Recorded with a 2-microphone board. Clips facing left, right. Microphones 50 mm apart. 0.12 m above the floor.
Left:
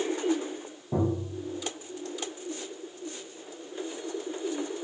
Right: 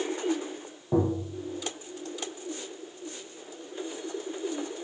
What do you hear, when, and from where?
0.9 s tapping: 30° right (ahead or behind), 3 m